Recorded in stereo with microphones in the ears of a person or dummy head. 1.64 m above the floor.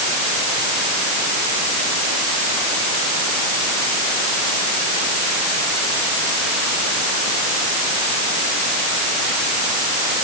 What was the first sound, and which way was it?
Only background noise.